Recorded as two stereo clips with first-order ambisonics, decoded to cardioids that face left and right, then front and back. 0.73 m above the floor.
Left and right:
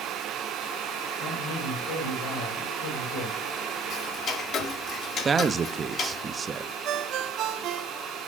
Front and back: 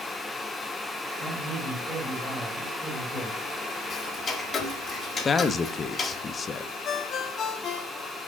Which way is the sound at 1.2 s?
100° left.